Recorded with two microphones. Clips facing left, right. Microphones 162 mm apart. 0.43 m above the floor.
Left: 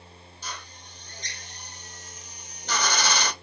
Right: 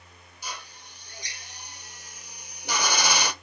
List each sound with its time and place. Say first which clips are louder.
0.4 s a drill: right 1 dB; 10° right (ahead or behind), 0.7 m